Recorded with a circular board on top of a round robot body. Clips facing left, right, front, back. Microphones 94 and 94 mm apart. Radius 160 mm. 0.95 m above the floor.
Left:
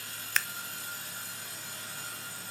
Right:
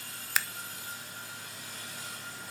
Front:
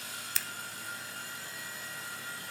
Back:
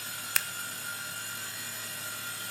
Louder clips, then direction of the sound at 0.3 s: Even, back 8 dB; 170° right.